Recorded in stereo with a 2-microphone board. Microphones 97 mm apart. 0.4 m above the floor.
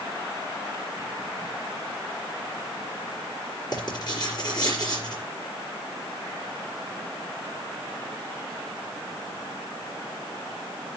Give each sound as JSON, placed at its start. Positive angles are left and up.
{"t": 3.7, "sound": "writing", "side_deg": 45, "distance_m": 4.5}